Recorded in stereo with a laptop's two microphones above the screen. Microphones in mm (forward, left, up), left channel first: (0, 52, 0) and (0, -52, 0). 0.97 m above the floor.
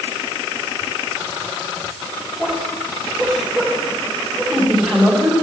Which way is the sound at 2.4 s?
15° right (ahead or behind).